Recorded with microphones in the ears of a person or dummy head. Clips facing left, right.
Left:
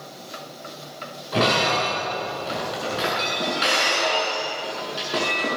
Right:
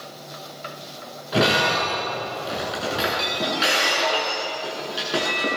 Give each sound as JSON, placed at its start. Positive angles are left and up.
{"t": 1.3, "sound": "breaking glass", "side_deg": -5, "distance_m": 7.5}